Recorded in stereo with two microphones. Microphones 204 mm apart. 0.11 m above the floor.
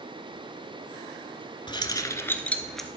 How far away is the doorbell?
I don't hear a doorbell.